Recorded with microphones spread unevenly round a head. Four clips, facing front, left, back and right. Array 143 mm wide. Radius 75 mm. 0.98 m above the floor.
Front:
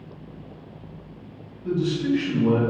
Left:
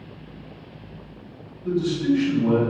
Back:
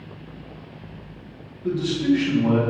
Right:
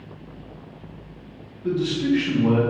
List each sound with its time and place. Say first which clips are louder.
1.6 s a man speaking: even, back 2 dB; 115° right, 1.8 m